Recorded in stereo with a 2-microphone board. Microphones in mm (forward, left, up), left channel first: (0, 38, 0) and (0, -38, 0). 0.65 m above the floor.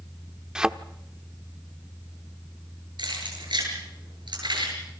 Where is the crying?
I don't hear crying.